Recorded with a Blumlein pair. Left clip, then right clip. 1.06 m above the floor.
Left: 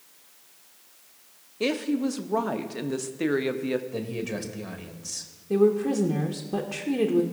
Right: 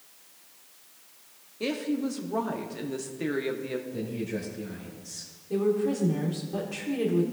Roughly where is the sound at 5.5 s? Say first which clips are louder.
Left 4 dB; ahead left.